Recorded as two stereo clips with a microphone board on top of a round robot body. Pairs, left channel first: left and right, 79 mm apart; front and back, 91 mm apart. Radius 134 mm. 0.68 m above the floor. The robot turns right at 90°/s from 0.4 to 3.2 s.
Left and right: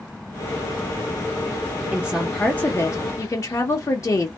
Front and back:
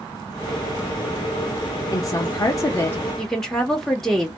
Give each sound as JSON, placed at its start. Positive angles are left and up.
{"t": 1.9, "sound": "a woman speaking", "azimuth_deg": -30, "distance_m": 1.0}